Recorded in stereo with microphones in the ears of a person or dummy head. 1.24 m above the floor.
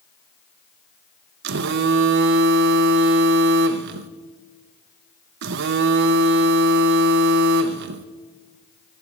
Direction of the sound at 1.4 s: 55° right (ahead or behind).